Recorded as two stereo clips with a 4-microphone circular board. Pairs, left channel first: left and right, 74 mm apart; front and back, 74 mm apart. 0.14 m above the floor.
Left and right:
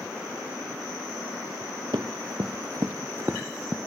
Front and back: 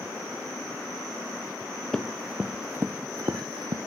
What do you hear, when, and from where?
1.9 s running footsteps: 85° right, 1.0 m; by 3.8 s 170° right, 0.8 m